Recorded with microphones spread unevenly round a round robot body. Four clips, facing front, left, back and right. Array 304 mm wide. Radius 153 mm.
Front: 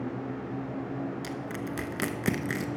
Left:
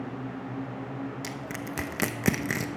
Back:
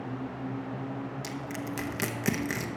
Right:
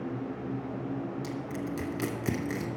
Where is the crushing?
80° left, 0.8 m.